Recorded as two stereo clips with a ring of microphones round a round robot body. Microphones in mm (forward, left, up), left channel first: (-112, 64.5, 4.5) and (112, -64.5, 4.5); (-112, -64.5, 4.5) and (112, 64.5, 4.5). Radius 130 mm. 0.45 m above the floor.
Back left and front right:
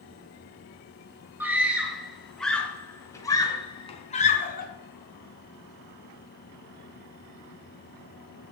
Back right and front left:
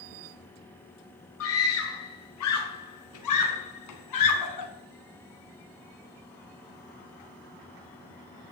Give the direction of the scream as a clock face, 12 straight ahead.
4 o'clock.